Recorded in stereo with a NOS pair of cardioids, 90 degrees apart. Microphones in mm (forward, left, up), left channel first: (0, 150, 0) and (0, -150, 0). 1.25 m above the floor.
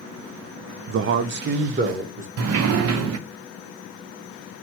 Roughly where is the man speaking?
Ahead right.